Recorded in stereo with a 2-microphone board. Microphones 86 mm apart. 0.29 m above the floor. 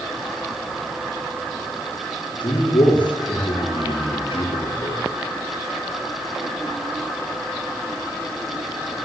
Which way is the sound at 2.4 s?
70° left (ahead or behind).